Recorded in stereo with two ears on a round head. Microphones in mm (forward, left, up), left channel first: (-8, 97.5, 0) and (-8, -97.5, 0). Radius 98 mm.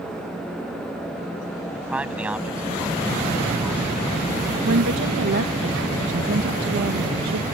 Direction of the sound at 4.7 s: 65° right (ahead or behind).